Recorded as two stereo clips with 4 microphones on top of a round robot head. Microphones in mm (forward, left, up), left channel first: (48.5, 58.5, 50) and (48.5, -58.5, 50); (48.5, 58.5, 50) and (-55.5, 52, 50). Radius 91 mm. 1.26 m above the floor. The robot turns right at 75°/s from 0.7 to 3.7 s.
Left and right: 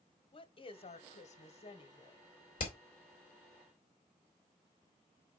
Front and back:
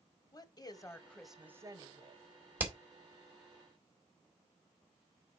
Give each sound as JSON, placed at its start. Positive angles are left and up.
{"t": 0.3, "sound": "a woman speaking", "azimuth_deg": 50, "distance_m": 1.1}
{"t": 2.6, "sound": "hammering", "azimuth_deg": 110, "distance_m": 2.0}